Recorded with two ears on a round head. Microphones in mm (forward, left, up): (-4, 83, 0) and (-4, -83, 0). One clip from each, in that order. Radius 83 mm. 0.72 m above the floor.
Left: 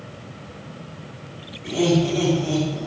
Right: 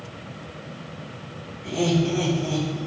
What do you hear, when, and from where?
1.6 s laughter: 10° left (ahead or behind), 3.5 m